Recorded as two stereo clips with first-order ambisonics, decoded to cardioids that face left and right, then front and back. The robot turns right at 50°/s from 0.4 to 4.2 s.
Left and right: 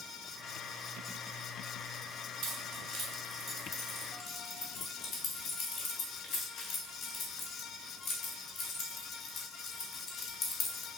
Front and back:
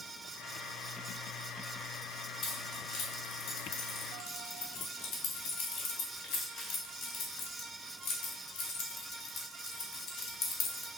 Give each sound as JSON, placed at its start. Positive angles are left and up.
{"t": 2.4, "sound": "keys jangling", "azimuth_deg": -60, "distance_m": 0.8}